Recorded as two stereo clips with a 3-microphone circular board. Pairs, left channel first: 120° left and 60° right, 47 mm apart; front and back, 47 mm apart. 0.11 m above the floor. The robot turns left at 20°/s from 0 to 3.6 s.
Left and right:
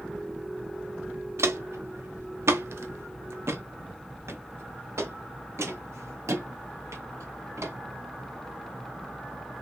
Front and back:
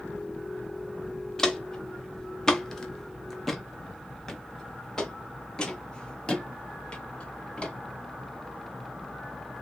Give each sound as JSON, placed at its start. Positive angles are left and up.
{"t": 1.4, "sound": "footsteps", "azimuth_deg": -80, "distance_m": 1.1}